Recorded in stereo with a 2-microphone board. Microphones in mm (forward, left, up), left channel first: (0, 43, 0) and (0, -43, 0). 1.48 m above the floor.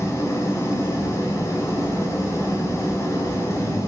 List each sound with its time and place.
0.0 s an engine running: 35° left (ahead or behind), 3 m